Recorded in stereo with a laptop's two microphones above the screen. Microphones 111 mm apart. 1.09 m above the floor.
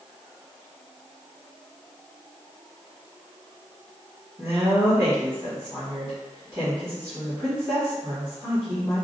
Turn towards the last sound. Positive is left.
turn(degrees=-30)  # may be behind; listen again after turning